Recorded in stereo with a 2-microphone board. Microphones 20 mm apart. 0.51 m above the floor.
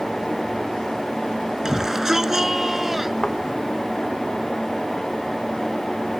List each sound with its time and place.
1.6 s a shout: 25° right (ahead or behind); by 3.1 s 20° right (ahead or behind)
3.2 s a thud: 45° left (ahead or behind)